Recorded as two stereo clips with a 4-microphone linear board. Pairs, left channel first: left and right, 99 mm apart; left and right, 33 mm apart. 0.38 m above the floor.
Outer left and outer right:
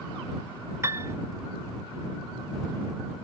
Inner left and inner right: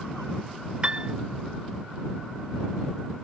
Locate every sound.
0.8 s a piano: 30° right (ahead or behind)